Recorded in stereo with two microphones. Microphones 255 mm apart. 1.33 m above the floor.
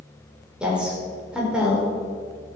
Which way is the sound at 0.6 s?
5° right (ahead or behind).